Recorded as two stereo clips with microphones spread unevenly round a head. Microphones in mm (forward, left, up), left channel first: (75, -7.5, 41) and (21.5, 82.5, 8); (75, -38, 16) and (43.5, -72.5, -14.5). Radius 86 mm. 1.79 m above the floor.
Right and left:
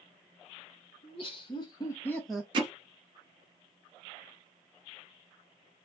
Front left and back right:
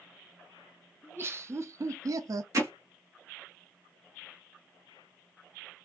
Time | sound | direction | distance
1.0 | laughter | 70° right | 0.9 m
2.5 | hammering | straight behind | 0.7 m